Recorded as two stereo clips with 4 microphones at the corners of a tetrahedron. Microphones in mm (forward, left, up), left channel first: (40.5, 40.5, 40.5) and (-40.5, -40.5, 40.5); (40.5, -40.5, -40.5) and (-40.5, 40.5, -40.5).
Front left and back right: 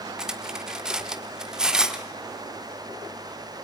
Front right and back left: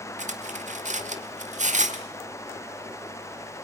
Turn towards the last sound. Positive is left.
turn(degrees=140)